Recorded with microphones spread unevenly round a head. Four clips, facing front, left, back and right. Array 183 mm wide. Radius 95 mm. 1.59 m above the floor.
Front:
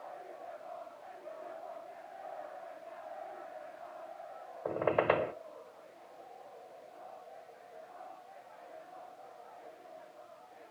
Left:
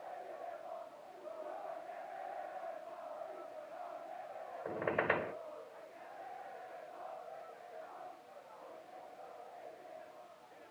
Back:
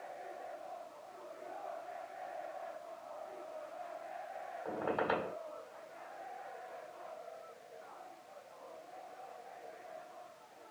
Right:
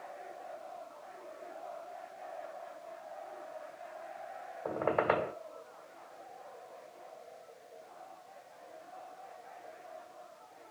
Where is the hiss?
No hiss in this recording.